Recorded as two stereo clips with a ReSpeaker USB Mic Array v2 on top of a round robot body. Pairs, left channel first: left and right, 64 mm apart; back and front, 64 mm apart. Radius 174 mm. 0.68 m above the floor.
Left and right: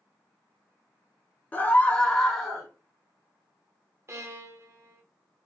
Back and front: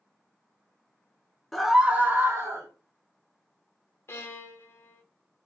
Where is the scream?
100° left, 0.7 m; by 2.7 s straight ahead, 0.9 m.